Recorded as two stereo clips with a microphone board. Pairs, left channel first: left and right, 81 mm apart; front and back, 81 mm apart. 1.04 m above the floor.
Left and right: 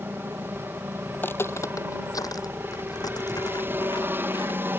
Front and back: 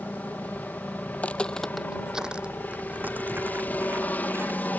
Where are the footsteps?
50° left; by 4.7 s 120° left.